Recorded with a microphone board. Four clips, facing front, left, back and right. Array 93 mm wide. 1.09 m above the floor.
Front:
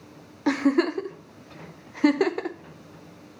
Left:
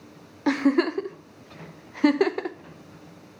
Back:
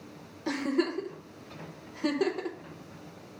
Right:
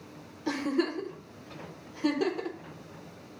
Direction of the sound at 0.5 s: 55° left.